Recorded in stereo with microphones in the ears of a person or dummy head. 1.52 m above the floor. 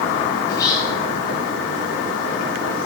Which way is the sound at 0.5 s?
20° left (ahead or behind).